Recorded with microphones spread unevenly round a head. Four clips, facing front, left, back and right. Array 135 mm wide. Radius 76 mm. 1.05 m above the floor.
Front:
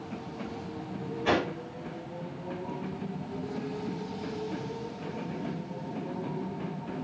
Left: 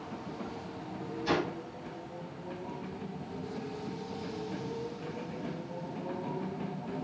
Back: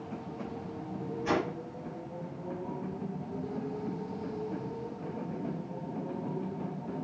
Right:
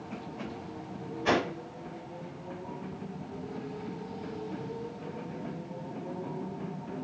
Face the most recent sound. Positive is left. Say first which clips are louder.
# right 3 dB, front 3 dB
turn(degrees=-50)